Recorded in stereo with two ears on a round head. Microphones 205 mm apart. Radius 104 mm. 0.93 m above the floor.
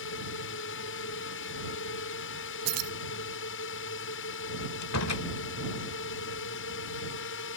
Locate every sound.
0.0 s a drone: 55° left (ahead or behind)
2.6 s keys jangling: 80° right
4.8 s a door slam: 85° left